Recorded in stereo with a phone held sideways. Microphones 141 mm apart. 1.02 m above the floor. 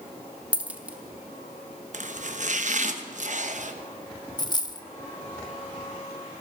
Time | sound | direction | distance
0.5 | a dropped coin | 10° right (ahead or behind) | 0.7 m
1.9 | chopping | 55° right (ahead or behind) | 0.8 m
4.4 | a dropped coin | 30° left (ahead or behind) | 0.7 m